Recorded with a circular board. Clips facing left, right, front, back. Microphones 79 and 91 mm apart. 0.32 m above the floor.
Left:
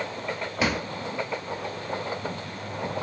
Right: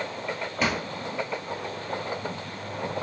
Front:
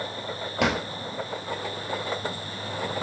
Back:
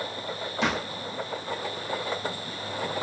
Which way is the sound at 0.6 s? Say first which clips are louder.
Left 1 dB, front 3 dB; 5° left.